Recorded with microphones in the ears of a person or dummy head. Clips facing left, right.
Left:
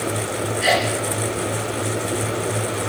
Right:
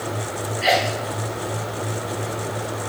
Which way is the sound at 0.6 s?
5° left (ahead or behind).